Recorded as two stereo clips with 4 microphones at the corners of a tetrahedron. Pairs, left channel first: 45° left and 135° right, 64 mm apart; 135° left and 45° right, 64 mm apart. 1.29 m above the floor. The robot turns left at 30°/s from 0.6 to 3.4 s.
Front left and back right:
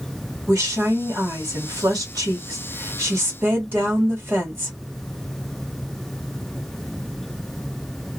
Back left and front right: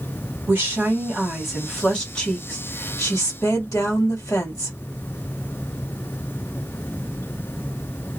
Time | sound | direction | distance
0.5 | a woman speaking | 105° right | 2 m